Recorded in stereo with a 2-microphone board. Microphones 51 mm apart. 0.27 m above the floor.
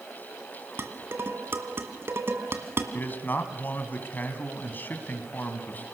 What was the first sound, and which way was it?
Dishes clattering, 50° right (ahead or behind).